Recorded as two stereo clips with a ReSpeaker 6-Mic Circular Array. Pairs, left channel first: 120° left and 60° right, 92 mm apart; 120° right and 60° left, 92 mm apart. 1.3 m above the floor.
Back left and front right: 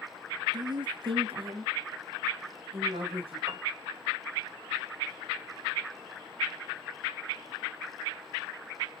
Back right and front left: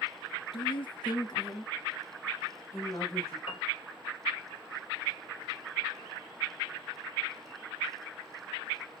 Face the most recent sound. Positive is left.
turn(degrees=-120)